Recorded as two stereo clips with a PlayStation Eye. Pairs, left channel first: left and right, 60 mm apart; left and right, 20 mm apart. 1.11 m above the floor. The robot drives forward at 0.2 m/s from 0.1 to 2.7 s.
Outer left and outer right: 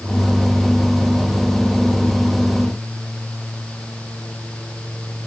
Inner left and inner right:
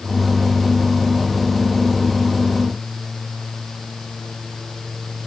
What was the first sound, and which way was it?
Only background noise.